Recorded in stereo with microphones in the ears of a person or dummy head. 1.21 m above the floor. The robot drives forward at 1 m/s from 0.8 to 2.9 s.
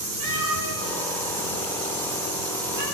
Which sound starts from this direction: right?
A cat meowing, at 0.2 s.